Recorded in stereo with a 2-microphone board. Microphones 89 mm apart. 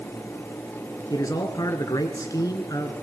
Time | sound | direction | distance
1.1 | a man speaking | 45° left (ahead or behind) | 1.9 m